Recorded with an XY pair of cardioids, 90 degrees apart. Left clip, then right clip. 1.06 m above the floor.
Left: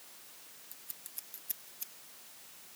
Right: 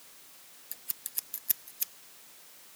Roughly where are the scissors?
Right.